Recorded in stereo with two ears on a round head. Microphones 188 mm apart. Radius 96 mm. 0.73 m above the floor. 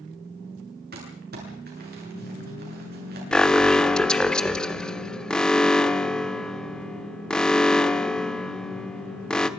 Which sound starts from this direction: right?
Crumpling, at 0.9 s.